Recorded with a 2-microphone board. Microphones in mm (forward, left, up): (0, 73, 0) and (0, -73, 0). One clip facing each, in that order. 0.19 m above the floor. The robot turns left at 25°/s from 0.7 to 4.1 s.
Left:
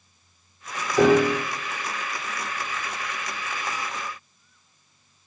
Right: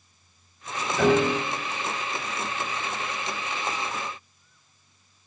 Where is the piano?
70° left (ahead or behind), 6 m; by 1.4 s 75° left (ahead or behind), 6 m.